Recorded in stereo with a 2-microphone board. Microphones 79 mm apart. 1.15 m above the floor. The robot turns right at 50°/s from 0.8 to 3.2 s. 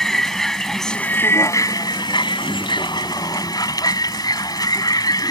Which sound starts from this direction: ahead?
A vehicle, at 0.0 s.